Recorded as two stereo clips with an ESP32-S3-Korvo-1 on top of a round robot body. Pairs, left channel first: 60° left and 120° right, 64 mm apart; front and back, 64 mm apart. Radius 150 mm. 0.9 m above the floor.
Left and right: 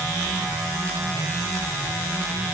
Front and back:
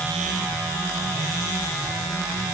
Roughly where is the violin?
No violin in this recording.